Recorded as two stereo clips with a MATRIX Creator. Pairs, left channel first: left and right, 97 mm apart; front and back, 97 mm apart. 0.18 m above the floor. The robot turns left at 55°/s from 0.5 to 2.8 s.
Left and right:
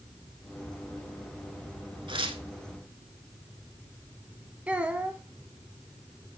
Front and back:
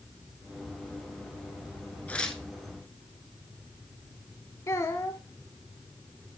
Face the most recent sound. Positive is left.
turn(degrees=-25)